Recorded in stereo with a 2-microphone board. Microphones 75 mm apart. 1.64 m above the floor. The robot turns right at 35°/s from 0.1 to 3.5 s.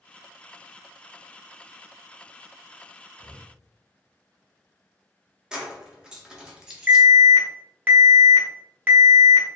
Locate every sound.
3.2 s breathing: 80° right, 0.7 m; by 3.5 s 85° right, 0.7 m
5.5 s keys jangling: 10° right (ahead or behind), 0.6 m
6.9 s an alarm: 25° right (ahead or behind), 0.7 m